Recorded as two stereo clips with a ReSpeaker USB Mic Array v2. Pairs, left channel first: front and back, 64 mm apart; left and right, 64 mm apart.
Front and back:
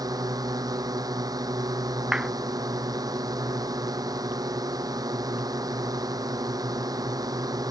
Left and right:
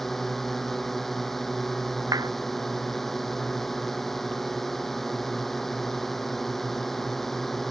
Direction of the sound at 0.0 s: 175° left.